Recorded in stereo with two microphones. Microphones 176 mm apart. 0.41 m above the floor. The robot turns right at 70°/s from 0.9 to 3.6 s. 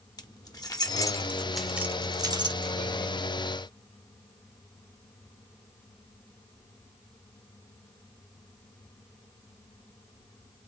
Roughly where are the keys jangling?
Left.